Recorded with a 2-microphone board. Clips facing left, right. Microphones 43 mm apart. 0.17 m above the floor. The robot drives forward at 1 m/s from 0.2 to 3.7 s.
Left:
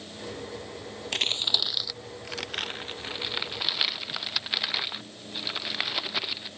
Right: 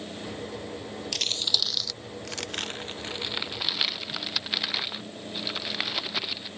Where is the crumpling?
40° left (ahead or behind); by 6.5 s 5° left (ahead or behind).